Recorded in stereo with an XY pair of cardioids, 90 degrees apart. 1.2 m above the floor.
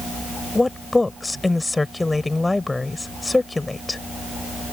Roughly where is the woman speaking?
Ahead.